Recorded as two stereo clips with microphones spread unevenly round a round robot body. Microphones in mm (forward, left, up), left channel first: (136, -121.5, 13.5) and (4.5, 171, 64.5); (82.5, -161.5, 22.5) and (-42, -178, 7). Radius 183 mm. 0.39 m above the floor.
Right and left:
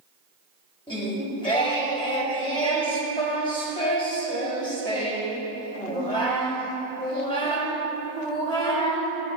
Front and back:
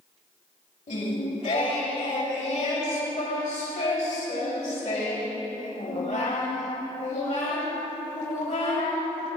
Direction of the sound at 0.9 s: Straight ahead.